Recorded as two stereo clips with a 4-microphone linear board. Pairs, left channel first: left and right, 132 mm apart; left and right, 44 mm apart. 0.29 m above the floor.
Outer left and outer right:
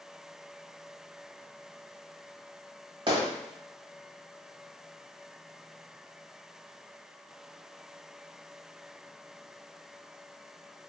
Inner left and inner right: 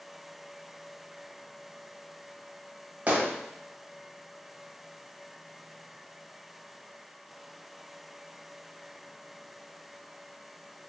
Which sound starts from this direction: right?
A gunshot, at 3.1 s.